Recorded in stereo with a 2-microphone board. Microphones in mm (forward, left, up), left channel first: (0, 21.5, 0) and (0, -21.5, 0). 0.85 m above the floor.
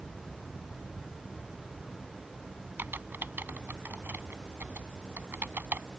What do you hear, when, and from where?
2.8 s typing on a keyboard: 55° right (ahead or behind)